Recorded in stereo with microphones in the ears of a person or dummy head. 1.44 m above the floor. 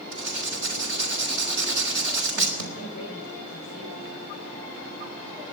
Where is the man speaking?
40° left (ahead or behind), 5 m.